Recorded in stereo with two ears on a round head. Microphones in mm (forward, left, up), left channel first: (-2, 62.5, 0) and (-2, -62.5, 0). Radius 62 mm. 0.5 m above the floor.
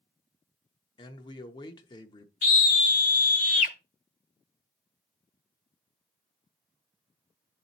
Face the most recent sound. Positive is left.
turn(degrees=60)  # may be behind; listen again after turning